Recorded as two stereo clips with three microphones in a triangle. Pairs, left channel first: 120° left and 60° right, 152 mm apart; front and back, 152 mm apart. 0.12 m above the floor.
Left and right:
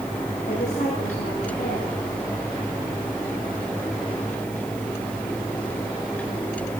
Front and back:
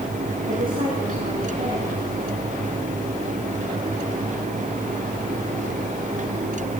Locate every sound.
0.5 s a woman speaking: 160° left, 8 m